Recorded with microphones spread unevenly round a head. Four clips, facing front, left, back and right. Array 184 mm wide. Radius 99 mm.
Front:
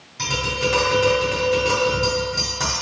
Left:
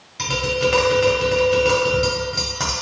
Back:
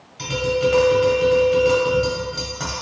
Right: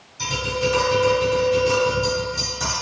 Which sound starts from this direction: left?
Tapping, at 0.2 s.